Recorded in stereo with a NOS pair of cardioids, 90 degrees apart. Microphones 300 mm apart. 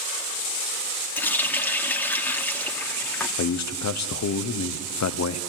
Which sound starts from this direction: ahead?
A running tap, at 1.2 s.